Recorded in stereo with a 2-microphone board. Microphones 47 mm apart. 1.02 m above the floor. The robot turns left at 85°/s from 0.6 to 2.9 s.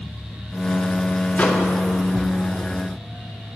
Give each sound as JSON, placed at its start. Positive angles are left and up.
{"t": 1.4, "sound": "a microwave", "side_deg": 25, "distance_m": 0.7}